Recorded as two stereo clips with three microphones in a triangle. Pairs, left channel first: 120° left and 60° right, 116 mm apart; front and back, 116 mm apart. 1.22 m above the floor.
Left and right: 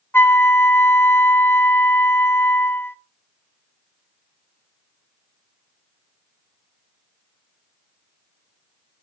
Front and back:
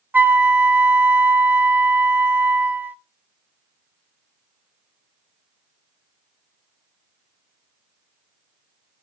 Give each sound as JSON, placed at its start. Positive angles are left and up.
{"t": 0.1, "sound": "a flute", "azimuth_deg": 140, "distance_m": 0.6}